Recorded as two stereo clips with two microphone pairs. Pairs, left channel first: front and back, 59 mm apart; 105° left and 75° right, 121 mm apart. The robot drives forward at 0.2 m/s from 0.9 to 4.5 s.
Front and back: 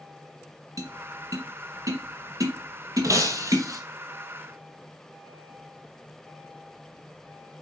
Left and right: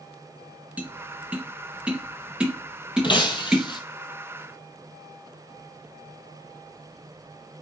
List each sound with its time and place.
0.8 s tapping: 155° right, 1.6 m; by 3.7 s 160° right, 2 m
3.0 s breaking glass: 155° left, 1.2 m